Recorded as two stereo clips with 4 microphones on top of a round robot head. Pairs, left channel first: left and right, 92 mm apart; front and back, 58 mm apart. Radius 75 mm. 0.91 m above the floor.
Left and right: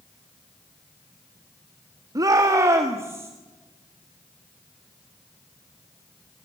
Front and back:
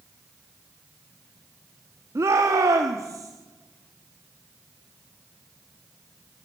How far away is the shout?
About 1.6 m.